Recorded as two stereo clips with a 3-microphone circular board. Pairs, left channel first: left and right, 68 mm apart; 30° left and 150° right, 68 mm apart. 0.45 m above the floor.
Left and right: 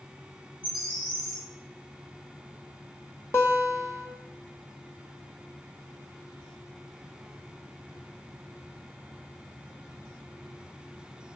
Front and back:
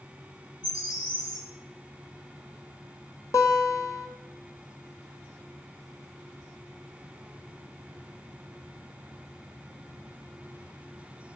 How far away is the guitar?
About 1.8 m.